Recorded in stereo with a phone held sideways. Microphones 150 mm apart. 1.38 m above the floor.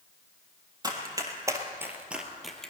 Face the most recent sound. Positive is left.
turn(degrees=5)  # may be behind; listen again after turning